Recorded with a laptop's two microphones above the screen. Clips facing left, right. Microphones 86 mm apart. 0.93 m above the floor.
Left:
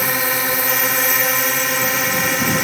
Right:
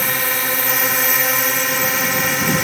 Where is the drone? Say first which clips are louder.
Left 1 dB; 10° left (ahead or behind).